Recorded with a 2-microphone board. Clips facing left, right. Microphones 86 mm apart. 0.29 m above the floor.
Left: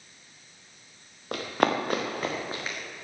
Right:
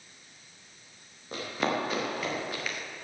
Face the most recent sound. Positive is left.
turn(degrees=25)  # may be behind; listen again after turning